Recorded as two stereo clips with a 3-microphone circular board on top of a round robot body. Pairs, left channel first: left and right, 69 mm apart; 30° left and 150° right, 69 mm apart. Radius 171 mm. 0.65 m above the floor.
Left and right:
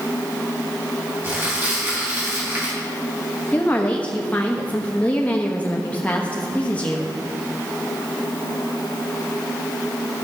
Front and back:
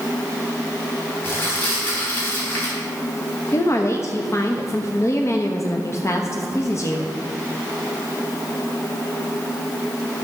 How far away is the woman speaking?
About 1.2 m.